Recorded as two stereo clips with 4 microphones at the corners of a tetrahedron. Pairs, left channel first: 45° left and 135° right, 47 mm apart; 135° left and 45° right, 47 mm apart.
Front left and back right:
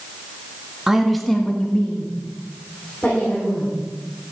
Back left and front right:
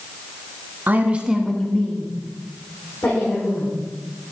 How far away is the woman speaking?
About 1.3 m.